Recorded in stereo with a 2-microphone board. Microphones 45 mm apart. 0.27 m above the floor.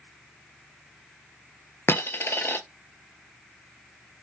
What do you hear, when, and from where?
1.9 s a dropped coin: 55° left (ahead or behind), 0.6 m